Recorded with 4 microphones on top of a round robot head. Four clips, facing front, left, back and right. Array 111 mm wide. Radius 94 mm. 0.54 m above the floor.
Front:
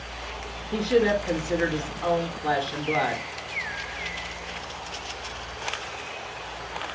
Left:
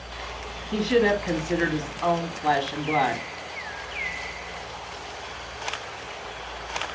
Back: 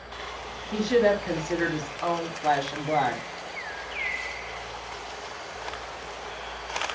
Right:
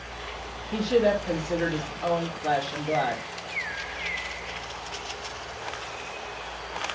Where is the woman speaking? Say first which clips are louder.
Left 1 dB, even; 125° left, 1.2 m.